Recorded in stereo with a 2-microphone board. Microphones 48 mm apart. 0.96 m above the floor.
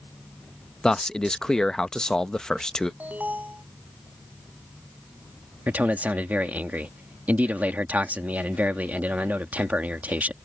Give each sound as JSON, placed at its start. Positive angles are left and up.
{"t": 0.8, "sound": "a man speaking", "side_deg": 10}
{"t": 3.0, "sound": "an alarm", "side_deg": -35}
{"t": 5.7, "sound": "a man speaking", "side_deg": -35}